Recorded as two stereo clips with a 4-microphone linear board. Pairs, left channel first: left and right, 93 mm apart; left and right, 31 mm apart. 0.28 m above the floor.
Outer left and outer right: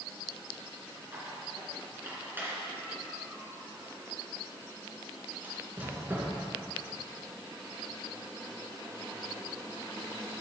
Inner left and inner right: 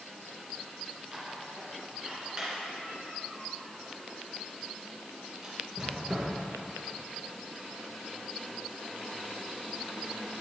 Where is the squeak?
20° right (ahead or behind), 2.5 m.